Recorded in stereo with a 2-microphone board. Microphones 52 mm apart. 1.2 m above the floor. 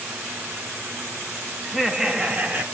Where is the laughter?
Centre (ahead or behind), 1.7 m; by 2.6 s 30° right (ahead or behind), 1.9 m.